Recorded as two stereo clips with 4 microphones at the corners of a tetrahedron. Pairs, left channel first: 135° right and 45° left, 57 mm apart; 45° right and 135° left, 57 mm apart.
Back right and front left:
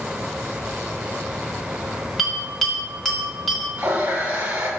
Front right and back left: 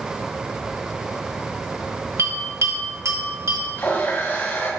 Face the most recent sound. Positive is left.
turn(degrees=-5)